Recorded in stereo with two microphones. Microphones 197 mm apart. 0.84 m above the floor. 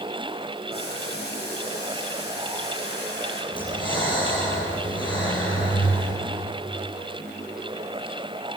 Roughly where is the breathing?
Left.